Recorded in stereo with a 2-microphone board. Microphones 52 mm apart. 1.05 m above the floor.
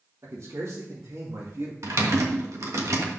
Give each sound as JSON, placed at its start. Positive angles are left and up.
{"t": 0.2, "sound": "a man speaking", "side_deg": -70, "distance_m": 2.5}
{"t": 1.8, "sound": "typing on a keyboard", "side_deg": -70, "distance_m": 1.5}